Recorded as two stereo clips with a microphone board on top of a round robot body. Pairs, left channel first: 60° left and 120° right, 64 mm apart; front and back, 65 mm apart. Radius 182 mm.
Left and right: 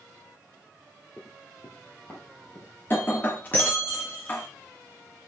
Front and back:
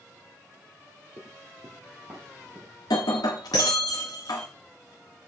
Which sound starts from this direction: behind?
Running footsteps, at 1.2 s.